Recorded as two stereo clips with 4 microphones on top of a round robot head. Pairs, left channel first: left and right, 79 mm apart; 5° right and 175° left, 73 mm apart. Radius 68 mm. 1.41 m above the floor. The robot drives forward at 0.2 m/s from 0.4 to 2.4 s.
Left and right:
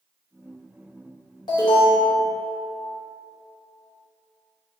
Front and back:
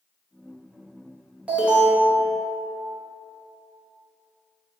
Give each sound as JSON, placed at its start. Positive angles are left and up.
{"t": 1.5, "sound": "an alarm", "azimuth_deg": 105, "distance_m": 0.8}